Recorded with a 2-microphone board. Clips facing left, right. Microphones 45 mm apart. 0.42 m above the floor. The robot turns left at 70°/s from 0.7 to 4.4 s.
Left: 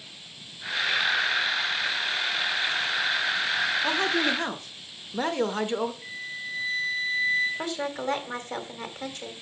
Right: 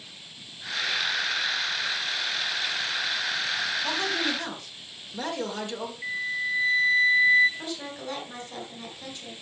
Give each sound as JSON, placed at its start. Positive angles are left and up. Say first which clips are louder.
{"t": 3.8, "sound": "a man speaking", "louder": "left 3 dB", "azimuth_deg": 120, "distance_m": 1.1}
{"t": 6.0, "sound": "a flute", "louder": "right 7 dB", "side_deg": -30, "distance_m": 3.0}
{"t": 7.6, "sound": "a woman speaking", "louder": "left 5 dB", "side_deg": 55, "distance_m": 2.0}